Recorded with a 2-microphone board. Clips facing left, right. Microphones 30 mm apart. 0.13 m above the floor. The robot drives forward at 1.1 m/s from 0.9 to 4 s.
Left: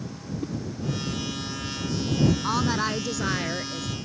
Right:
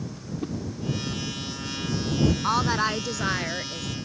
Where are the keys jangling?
I don't hear keys jangling.